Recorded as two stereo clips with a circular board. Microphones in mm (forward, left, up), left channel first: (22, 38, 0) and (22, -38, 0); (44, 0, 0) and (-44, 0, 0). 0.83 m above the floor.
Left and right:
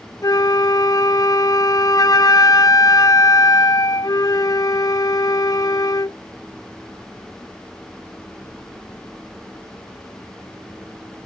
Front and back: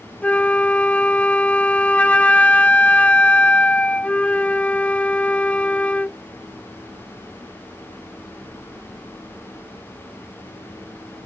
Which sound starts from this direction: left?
A flute, at 0.2 s.